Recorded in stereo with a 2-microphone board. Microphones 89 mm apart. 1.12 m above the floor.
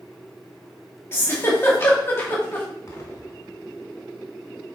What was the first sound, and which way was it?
A giggle, 25° left (ahead or behind).